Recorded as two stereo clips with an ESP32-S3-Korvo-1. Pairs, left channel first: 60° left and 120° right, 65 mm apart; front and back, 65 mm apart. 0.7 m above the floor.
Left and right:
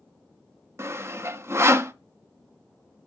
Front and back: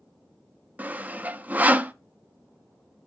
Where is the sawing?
130° right, 0.5 m.